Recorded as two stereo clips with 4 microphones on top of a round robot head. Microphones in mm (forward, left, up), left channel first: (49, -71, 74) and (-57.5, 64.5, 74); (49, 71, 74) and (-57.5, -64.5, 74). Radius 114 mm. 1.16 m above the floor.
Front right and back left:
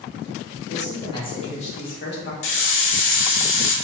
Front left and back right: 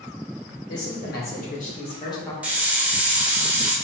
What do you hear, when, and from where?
0.7 s a man speaking: 25° left, 1.6 m; by 2.3 s 25° right, 1.0 m
2.4 s a hiss: 45° right, 0.7 m